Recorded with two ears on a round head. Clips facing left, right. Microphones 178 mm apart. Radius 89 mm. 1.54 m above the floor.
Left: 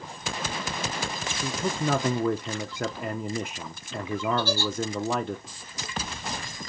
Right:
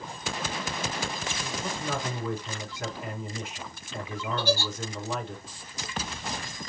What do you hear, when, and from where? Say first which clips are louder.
1.4 s a man speaking: left 8 dB; 45° left (ahead or behind), 0.6 m
4.4 s a giggle: even; 15° right (ahead or behind), 1.8 m